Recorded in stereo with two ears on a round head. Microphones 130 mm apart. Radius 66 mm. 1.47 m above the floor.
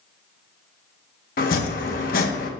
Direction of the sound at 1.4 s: 70° left (ahead or behind).